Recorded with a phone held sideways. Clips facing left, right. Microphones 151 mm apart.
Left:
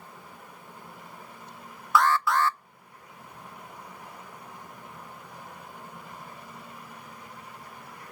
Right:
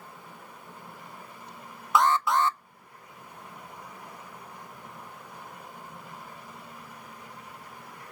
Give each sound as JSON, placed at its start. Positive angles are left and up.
{"t": 1.9, "sound": "an alarm", "side_deg": -20, "distance_m": 0.6}